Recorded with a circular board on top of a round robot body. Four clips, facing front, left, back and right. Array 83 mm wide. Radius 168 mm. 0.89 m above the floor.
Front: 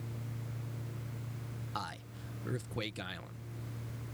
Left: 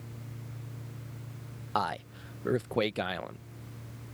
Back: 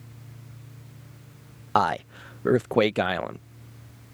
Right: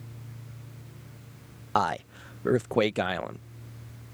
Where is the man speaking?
165° right.